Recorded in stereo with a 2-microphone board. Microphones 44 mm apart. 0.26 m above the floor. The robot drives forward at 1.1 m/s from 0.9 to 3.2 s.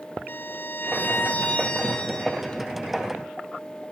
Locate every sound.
0.3 s a violin: 55° left (ahead or behind), 0.6 m; by 2.6 s 15° left (ahead or behind), 2 m